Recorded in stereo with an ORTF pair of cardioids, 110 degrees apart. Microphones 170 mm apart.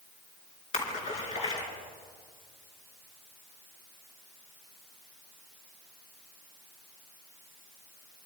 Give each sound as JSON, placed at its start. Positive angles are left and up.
{"t": 0.7, "sound": "a splash", "azimuth_deg": 45, "distance_m": 5.0}